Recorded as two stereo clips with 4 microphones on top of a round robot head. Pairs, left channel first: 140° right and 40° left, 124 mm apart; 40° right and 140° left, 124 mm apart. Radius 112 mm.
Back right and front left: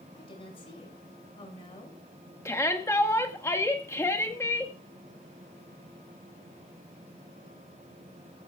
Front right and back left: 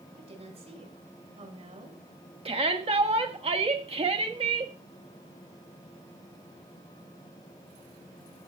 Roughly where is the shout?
Behind.